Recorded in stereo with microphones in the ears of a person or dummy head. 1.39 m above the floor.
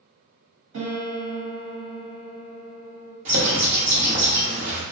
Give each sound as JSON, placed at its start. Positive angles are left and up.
{"t": 0.7, "sound": "a piano", "side_deg": -80, "distance_m": 1.6}
{"t": 3.2, "sound": "a bird", "side_deg": -35, "distance_m": 0.7}